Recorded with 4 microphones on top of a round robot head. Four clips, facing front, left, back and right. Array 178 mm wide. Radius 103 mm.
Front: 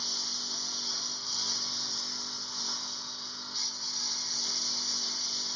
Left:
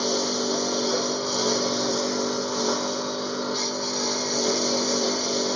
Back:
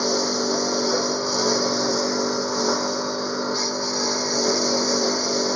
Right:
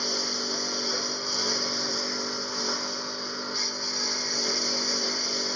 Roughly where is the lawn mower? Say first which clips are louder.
Left 8 dB, back 24 dB; behind left.